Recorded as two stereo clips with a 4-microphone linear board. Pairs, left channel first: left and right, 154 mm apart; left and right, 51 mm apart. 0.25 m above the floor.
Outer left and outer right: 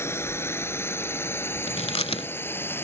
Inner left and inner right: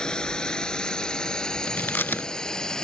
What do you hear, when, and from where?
0.0 s a drone: 15° left (ahead or behind)
1.7 s chewing: 40° left (ahead or behind)